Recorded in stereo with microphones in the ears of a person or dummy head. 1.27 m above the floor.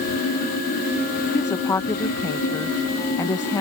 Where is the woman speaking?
15° left (ahead or behind).